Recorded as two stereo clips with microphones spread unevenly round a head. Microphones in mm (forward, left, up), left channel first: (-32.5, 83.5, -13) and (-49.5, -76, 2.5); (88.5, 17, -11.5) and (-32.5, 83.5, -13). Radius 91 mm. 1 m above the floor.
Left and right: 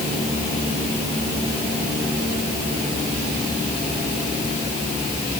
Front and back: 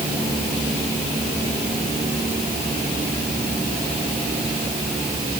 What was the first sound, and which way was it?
Only background noise.